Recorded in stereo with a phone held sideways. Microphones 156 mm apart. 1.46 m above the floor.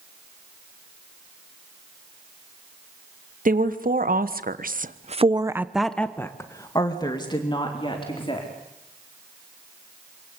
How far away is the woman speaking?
About 2.5 m.